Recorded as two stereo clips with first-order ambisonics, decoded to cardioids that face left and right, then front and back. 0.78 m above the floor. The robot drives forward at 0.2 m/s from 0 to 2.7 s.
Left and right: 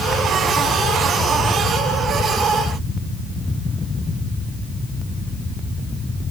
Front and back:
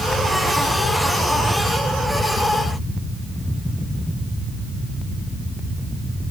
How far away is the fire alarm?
I don't hear a fire alarm.